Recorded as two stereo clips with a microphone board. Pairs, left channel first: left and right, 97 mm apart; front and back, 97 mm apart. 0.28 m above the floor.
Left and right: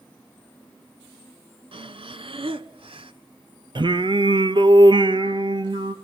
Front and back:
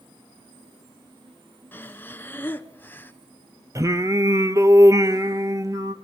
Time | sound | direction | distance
1.7 | breathing | 70° right | 0.8 m
3.8 | singing | 125° right | 0.9 m